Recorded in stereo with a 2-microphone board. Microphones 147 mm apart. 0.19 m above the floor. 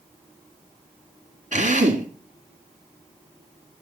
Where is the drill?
55° right (ahead or behind), 2 m.